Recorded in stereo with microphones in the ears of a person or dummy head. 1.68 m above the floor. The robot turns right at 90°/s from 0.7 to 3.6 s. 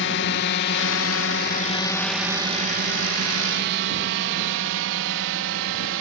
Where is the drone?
65° left (ahead or behind); by 6.0 s 75° right (ahead or behind).